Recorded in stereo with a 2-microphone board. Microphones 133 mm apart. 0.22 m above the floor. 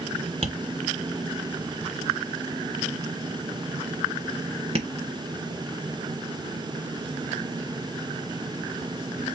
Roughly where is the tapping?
Right.